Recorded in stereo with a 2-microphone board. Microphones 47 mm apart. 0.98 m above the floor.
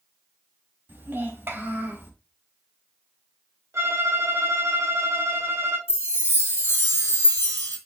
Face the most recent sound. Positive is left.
turn(degrees=65)  # may be behind; listen again after turning